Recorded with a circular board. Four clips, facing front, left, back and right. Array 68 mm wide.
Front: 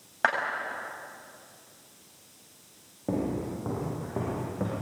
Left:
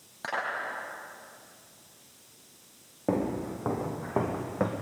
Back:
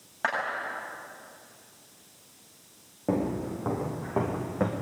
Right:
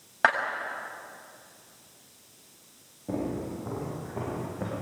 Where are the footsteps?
105° left, 6.5 m; by 4.7 s 120° left, 4.5 m.